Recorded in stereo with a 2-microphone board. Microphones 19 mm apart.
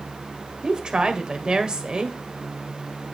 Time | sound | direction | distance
0.6 | a woman speaking | 45° right (ahead or behind) | 1.7 m